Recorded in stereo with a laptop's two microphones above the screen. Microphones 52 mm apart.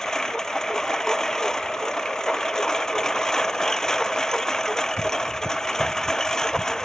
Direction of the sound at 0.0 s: 10° left (ahead or behind).